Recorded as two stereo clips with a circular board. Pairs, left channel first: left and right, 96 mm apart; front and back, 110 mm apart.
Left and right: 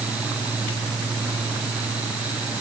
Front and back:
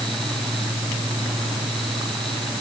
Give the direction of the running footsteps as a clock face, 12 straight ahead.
No running footsteps in this recording.